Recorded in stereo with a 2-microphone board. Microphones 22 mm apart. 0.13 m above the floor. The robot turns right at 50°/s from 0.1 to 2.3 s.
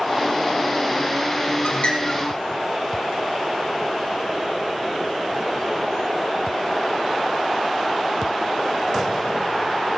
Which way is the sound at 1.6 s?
60° left (ahead or behind).